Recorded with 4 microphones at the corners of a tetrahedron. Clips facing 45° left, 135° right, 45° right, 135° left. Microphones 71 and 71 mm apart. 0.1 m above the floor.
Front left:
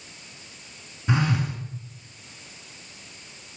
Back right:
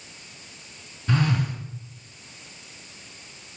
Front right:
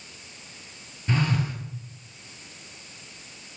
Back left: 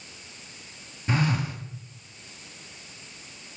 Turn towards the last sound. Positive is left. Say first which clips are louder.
# even, even
turn(degrees=85)